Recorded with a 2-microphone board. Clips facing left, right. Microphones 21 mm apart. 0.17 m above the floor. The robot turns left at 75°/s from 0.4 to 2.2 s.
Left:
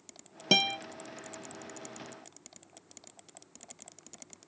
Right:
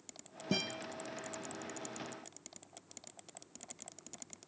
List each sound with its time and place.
0.5 s a guitar: 55° left (ahead or behind), 0.9 m; by 0.8 s 75° left (ahead or behind), 0.9 m